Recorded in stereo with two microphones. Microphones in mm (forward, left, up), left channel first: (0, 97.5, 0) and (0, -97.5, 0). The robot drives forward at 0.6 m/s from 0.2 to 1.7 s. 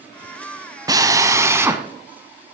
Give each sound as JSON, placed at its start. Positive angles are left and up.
{"t": 0.9, "sound": "a drill", "side_deg": -20, "distance_m": 0.7}